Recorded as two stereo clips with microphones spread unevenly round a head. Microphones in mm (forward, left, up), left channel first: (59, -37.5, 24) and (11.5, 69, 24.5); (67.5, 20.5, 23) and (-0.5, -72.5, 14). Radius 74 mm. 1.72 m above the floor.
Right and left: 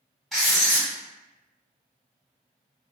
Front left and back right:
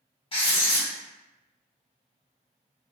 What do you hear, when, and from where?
0.3 s writing: 20° left, 1.3 m